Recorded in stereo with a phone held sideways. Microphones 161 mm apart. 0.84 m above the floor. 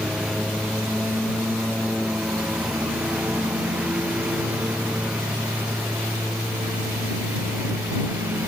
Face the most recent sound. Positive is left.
turn(degrees=-15)  # may be behind; listen again after turning